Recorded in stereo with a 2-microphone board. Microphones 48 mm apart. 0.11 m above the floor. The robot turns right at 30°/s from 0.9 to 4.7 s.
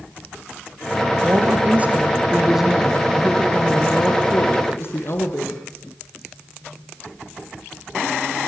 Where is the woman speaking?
50° right, 3 m; by 5.6 s 55° left, 3 m.